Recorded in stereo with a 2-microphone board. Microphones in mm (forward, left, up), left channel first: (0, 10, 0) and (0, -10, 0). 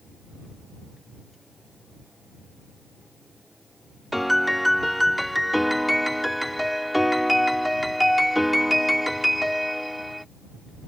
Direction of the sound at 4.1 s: Centre (ahead or behind).